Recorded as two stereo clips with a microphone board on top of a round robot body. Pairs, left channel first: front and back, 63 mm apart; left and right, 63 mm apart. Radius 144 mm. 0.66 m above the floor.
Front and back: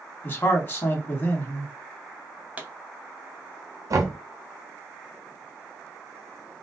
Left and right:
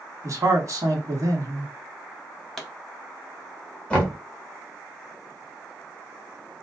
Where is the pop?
165° left, 1.2 m.